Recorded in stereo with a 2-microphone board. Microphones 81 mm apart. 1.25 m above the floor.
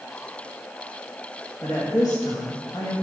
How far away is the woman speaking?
About 2 m.